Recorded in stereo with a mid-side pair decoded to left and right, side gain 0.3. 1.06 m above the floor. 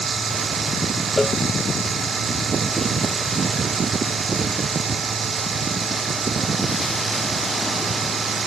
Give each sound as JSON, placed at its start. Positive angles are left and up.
{"t": 0.0, "sound": "a machine running", "azimuth_deg": -60}
{"t": 1.2, "sound": "a cowbell", "azimuth_deg": 30}